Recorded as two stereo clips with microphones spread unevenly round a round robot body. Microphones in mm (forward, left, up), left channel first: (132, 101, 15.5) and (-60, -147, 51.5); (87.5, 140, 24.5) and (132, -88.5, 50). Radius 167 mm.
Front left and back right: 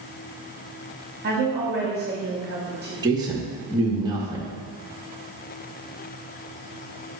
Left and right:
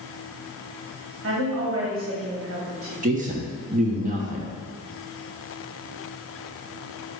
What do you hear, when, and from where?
1.2 s a woman speaking: 70° right, 1.4 m
3.0 s a man speaking: 50° right, 1.0 m